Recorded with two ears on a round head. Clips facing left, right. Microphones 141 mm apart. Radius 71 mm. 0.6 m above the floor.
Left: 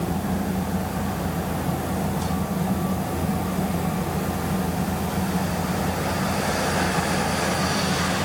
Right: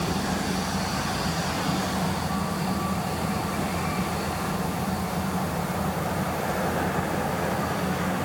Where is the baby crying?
I don't hear a baby crying.